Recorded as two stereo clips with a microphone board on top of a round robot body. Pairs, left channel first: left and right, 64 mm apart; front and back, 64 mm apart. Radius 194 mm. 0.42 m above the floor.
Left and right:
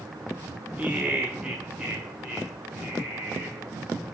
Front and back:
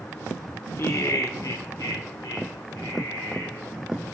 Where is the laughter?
30° right, 1.0 m; by 3.7 s 5° right, 3 m.